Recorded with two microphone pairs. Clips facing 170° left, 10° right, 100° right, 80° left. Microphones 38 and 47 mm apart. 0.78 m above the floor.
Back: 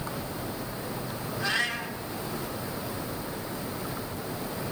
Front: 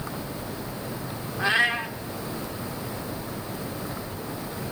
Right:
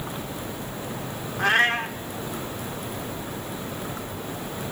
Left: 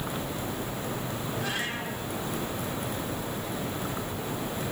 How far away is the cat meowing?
About 1.2 m.